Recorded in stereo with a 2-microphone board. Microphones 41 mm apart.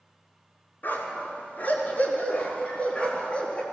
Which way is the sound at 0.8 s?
50° left (ahead or behind).